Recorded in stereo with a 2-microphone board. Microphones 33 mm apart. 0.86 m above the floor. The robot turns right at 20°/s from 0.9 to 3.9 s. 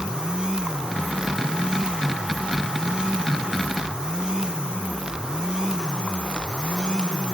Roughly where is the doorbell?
I don't hear a doorbell.